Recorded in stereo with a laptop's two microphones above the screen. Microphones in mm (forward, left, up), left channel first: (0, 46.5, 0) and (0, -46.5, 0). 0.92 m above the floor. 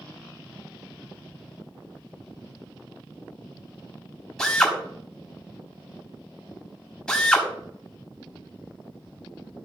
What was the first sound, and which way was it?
A drill, 10° left (ahead or behind).